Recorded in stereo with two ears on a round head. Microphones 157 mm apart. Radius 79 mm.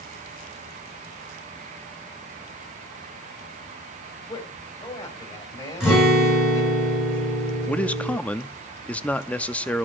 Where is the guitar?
5° right (ahead or behind), 8.5 m.